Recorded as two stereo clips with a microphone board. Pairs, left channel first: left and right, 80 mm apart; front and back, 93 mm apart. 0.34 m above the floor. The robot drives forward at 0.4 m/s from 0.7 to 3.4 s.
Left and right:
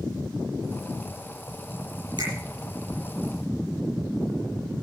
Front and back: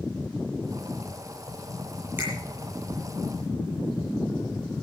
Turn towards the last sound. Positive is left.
turn(degrees=-115)